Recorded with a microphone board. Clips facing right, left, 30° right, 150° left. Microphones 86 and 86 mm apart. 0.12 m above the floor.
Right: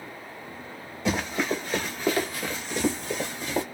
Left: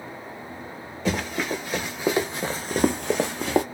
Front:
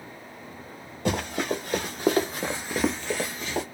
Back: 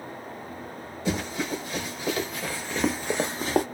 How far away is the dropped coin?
No dropped coin in this recording.